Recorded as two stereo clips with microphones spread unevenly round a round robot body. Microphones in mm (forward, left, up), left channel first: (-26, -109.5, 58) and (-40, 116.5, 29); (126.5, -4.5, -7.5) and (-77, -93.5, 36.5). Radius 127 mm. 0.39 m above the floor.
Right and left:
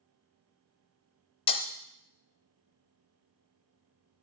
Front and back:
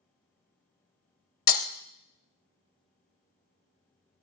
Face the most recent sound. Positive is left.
turn(degrees=-15)